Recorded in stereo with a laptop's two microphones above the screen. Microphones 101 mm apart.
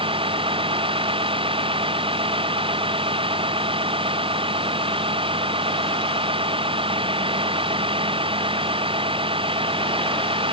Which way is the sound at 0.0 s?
60° right (ahead or behind).